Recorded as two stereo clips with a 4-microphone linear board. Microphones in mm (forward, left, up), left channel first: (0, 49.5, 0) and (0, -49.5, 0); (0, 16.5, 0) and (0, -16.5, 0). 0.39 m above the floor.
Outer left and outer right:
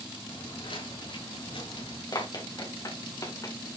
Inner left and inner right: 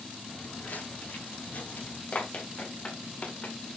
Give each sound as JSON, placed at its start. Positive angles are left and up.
{"t": 0.3, "sound": "footsteps", "side_deg": 70, "distance_m": 6.5}
{"t": 2.1, "sound": "running footsteps", "side_deg": 45, "distance_m": 2.5}